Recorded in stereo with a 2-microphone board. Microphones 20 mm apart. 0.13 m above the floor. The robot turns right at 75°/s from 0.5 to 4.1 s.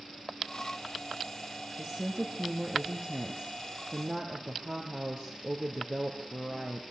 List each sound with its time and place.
1.8 s a woman speaking: 125° left, 2.5 m; by 6.8 s 60° right, 2.5 m